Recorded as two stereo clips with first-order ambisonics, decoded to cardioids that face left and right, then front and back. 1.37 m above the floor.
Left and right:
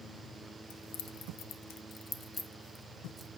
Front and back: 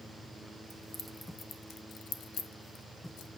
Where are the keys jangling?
95° left, 0.9 m; by 3.3 s straight ahead, 1.0 m.